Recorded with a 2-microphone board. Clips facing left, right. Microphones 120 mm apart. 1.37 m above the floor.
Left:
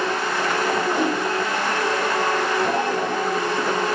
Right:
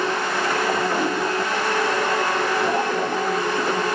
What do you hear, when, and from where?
0.9 s a whoosh: 15° left (ahead or behind), 4.5 m